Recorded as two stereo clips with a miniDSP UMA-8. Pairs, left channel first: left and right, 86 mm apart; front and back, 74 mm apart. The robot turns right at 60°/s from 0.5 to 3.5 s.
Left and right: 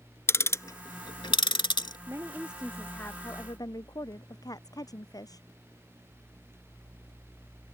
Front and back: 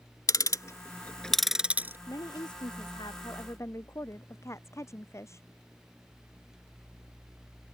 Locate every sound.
0.3 s ticking: 35° left; by 2.0 s 120° left
2.1 s a woman speaking: 35° right; by 5.5 s 50° left